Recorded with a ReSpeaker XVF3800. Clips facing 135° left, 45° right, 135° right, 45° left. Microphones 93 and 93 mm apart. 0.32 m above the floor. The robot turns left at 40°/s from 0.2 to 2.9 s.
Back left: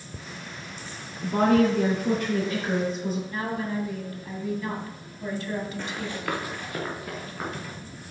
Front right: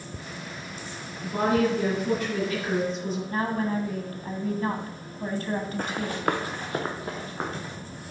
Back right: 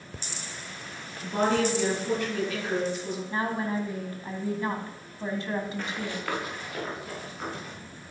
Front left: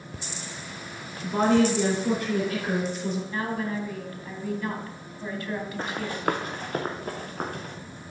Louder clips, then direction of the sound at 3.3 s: Front right 3 dB, back right 1 dB; 80° right.